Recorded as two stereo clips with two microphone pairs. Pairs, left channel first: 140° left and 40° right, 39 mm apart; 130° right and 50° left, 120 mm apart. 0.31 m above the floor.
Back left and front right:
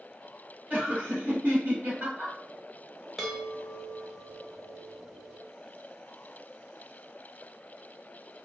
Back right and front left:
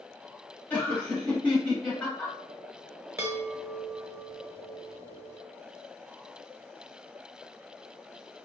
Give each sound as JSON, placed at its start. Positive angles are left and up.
{"t": 0.7, "sound": "laughter", "azimuth_deg": -55, "distance_m": 1.7}
{"t": 3.2, "sound": "a chime", "azimuth_deg": 40, "distance_m": 0.9}